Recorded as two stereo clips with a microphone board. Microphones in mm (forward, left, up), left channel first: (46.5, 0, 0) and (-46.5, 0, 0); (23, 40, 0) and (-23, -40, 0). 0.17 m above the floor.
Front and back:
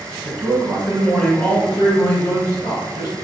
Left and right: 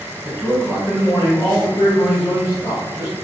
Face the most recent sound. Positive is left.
turn(degrees=15)